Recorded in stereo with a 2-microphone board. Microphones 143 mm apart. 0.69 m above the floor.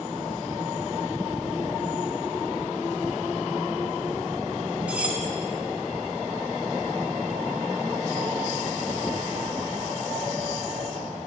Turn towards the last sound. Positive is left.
turn(degrees=-10)  # may be behind; listen again after turning